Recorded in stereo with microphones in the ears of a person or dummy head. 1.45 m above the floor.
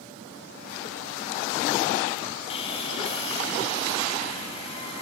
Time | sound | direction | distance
2.5 | sawing | 35° left (ahead or behind) | 2.5 m